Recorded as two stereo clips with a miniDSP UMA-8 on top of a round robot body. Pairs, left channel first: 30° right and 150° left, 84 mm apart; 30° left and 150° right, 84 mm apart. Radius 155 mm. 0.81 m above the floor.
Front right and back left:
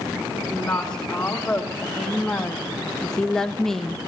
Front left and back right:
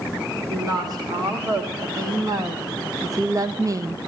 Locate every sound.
0.5 s a woman speaking: 110° right, 3 m; by 4.0 s 115° right, 1.1 m